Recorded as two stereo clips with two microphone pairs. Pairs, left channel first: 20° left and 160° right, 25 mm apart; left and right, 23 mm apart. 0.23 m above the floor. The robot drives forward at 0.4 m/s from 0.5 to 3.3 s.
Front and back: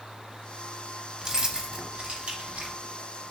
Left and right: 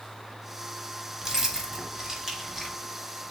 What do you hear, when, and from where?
1.2 s keys jangling: 125° right, 0.7 m; by 2.8 s 160° right, 1.1 m